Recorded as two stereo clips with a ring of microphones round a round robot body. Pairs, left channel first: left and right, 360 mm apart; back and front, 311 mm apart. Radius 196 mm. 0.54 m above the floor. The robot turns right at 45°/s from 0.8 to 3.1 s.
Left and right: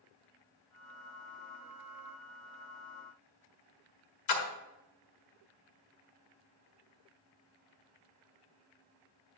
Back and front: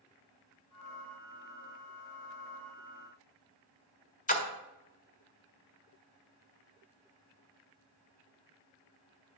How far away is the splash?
About 1.6 m.